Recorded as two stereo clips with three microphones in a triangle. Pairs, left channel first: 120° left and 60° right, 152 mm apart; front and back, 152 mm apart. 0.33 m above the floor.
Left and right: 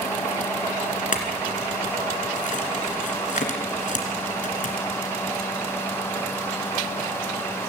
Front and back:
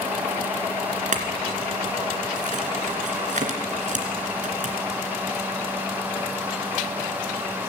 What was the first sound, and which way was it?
A clink, 150° left.